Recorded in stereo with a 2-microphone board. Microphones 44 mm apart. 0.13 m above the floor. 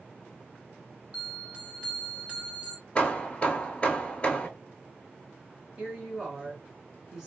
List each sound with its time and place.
1.1 s a bell: 25° right (ahead or behind), 1.5 m
3.0 s hammering: 25° left (ahead or behind), 0.7 m
5.8 s a woman speaking: 10° right (ahead or behind), 1.5 m